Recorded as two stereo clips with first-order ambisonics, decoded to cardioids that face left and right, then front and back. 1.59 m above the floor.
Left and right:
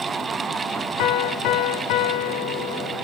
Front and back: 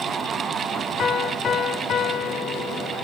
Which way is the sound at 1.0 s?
65° left.